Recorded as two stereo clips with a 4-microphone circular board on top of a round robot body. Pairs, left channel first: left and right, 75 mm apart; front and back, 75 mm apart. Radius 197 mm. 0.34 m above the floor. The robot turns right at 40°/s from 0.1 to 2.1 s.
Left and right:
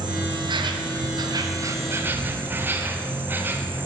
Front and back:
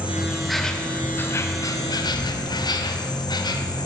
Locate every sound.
0.0 s an insect: 105° right, 0.8 m; by 3.9 s 25° right, 0.8 m